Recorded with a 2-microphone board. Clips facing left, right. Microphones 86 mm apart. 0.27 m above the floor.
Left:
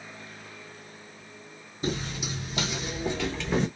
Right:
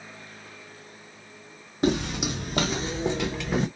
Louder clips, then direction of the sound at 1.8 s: Right 7 dB; 70° right (ahead or behind).